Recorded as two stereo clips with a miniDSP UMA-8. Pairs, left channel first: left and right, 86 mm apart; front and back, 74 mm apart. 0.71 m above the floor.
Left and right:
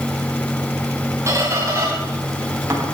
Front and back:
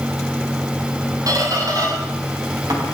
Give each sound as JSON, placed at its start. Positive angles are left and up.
{"t": 1.3, "sound": "a squeak", "azimuth_deg": -145, "distance_m": 7.5}